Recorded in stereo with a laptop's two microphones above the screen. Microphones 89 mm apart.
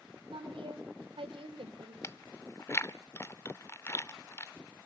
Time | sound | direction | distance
0.3 | a woman speaking | 80° right | 3 m
2.0 | chewing | 30° left (ahead or behind) | 0.7 m